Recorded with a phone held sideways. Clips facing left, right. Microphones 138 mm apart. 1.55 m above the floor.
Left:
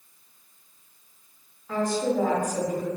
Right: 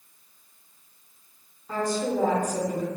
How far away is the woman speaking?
About 1.1 m.